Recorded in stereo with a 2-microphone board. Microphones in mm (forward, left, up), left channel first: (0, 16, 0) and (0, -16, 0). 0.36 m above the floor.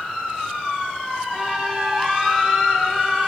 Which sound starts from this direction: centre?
A trumpet, at 1.3 s.